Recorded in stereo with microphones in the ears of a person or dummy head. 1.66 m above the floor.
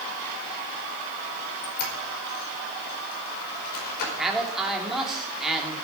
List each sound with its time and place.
1.6 s a squeak: 60° left (ahead or behind), 5 m
4.2 s a man speaking: centre (ahead or behind), 3.5 m